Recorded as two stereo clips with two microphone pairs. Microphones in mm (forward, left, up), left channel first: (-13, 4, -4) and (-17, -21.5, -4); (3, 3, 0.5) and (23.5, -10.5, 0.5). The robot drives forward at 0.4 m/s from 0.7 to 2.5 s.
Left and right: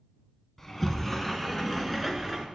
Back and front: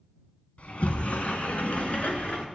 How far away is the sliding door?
About 1.0 m.